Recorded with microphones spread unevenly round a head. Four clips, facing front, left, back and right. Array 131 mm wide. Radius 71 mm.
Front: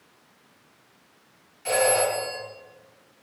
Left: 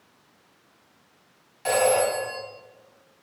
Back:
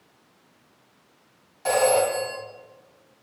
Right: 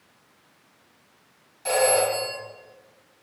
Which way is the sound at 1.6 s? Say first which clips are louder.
Even, back 2 dB; 155° left.